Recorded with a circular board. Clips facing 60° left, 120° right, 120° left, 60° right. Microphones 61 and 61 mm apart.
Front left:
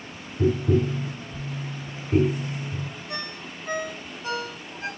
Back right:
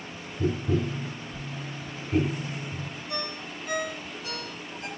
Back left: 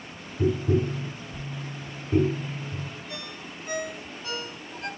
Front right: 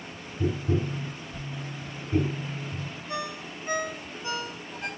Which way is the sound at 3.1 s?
5° left.